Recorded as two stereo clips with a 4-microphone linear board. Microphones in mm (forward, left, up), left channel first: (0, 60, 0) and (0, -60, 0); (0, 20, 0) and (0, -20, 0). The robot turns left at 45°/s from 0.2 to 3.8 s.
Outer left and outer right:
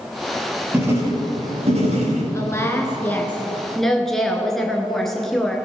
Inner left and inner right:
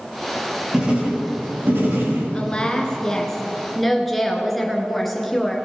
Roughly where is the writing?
Ahead.